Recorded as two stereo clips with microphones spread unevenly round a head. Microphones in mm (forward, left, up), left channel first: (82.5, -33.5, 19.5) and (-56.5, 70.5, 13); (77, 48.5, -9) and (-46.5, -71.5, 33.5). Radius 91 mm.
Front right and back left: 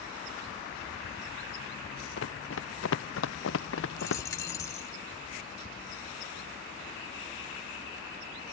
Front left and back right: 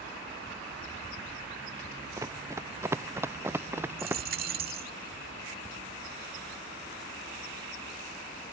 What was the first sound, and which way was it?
Running footsteps, 65° right.